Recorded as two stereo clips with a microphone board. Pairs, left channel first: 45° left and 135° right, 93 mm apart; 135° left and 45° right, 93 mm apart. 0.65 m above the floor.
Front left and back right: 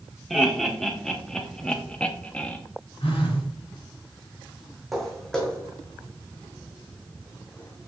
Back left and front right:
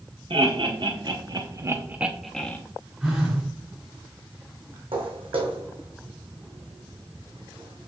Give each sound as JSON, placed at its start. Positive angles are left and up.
{"t": 0.3, "sound": "laughter", "azimuth_deg": -45, "distance_m": 1.5}
{"t": 3.0, "sound": "a phone buzzing", "azimuth_deg": 35, "distance_m": 3.5}
{"t": 4.9, "sound": "footsteps", "azimuth_deg": -45, "distance_m": 2.0}